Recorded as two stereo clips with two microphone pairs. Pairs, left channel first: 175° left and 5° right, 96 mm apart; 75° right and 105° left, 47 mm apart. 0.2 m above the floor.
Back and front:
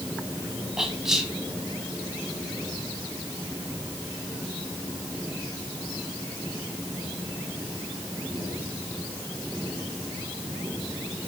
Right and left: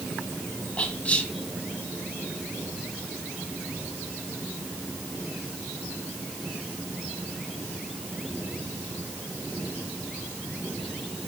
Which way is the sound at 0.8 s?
85° right.